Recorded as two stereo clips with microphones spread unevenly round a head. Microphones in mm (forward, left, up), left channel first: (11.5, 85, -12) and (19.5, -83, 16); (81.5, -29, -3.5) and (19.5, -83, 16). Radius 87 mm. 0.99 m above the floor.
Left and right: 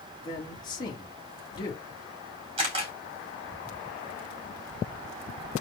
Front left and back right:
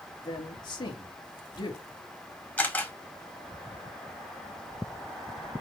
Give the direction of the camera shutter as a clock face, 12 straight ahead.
1 o'clock.